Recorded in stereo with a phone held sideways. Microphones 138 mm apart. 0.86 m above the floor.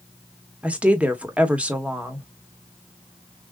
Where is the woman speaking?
10° right (ahead or behind), 1.4 m.